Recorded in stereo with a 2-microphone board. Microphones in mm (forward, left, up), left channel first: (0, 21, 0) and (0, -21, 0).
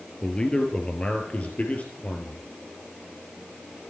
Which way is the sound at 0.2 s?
20° left (ahead or behind).